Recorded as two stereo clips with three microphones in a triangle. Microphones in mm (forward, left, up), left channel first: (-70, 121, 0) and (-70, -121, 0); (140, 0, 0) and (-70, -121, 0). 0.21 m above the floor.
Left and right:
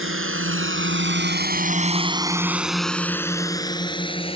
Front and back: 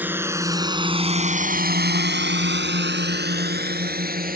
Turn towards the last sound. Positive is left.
turn(degrees=155)